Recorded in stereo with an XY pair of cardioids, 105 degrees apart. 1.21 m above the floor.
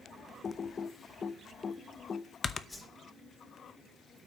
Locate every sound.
0.4 s typing on a keyboard: 40° left, 0.7 m
2.7 s a whoosh: 25° left, 4 m